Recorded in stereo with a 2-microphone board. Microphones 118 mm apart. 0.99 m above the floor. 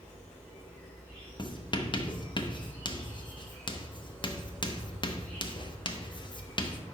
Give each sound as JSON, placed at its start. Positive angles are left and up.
{"t": 0.0, "sound": "an insect", "side_deg": 10, "distance_m": 2.0}
{"t": 1.4, "sound": "writing", "side_deg": 40, "distance_m": 0.6}